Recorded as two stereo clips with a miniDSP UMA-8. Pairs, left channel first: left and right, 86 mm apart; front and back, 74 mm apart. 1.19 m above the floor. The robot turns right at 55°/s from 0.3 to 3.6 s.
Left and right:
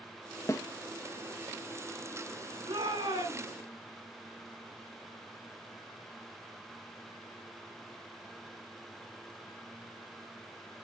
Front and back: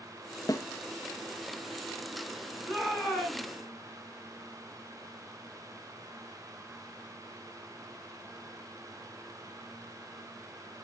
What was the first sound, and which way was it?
A snare drum, 35° left.